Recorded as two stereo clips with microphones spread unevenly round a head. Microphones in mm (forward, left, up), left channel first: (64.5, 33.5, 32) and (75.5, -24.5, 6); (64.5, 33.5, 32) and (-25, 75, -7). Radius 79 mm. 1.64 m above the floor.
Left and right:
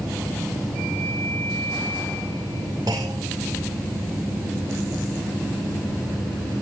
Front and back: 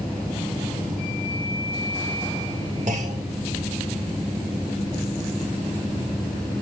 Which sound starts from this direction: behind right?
A clunk, at 2.9 s.